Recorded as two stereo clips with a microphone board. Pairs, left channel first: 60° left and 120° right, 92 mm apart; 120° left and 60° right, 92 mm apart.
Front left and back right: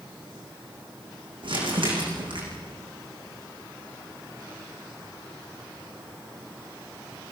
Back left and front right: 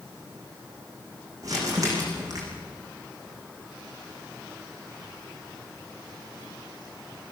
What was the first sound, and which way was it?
Crumpling, 110° right.